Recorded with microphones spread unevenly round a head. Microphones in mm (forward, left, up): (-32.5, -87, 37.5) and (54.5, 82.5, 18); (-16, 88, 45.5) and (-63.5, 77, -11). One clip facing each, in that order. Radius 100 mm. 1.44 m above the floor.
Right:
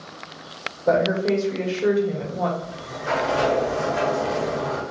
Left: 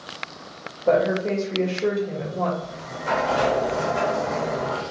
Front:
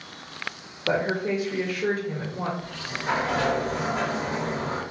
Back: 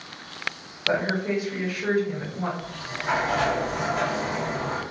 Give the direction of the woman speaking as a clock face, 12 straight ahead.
1 o'clock.